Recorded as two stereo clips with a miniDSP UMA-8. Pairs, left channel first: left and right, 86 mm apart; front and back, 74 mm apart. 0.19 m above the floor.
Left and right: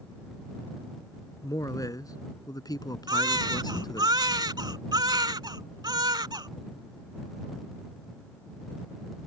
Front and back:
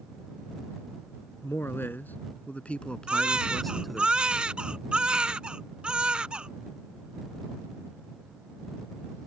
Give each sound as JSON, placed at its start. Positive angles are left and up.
{"t": 1.4, "sound": "a man speaking", "azimuth_deg": 50}
{"t": 3.1, "sound": "a baby crying", "azimuth_deg": -105}